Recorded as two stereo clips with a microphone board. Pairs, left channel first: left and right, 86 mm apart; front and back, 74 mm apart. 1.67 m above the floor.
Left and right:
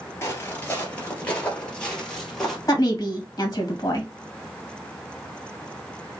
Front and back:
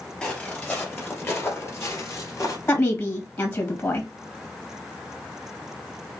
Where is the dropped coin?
No dropped coin in this recording.